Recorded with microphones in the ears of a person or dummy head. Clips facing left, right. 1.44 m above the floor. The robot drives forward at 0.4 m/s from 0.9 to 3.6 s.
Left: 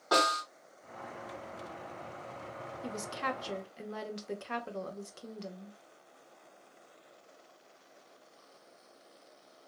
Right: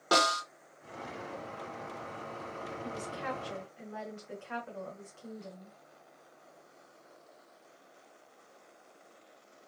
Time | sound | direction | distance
0.1 | a snare drum | 45° right (ahead or behind) | 1.4 m
2.8 | a woman speaking | 60° left (ahead or behind) | 0.8 m